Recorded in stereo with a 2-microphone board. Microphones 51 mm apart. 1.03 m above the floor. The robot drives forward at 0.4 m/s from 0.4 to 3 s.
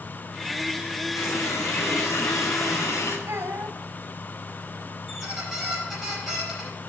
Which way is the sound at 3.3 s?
70° right (ahead or behind).